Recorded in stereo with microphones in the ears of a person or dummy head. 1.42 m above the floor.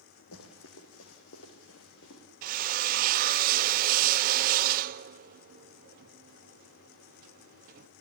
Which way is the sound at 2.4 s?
40° right (ahead or behind).